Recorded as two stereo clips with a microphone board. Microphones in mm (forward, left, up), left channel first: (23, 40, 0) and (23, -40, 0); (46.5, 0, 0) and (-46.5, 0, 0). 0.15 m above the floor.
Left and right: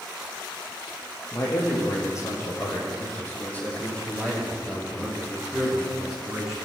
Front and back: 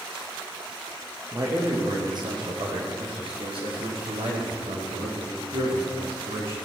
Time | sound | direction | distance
1.3 | a man speaking | 130° left | 5 m